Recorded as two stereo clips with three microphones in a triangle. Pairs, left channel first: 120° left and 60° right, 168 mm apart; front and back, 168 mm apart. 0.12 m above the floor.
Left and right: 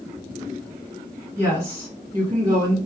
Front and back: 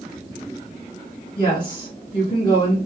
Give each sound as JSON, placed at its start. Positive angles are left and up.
{"t": 1.4, "sound": "a woman speaking", "azimuth_deg": -5, "distance_m": 1.7}